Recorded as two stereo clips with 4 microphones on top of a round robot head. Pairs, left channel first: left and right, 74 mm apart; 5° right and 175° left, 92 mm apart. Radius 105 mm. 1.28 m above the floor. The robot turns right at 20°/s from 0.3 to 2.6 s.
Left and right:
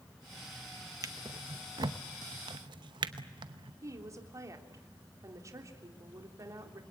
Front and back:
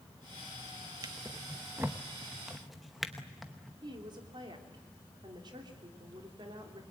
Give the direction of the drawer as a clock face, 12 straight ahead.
4 o'clock.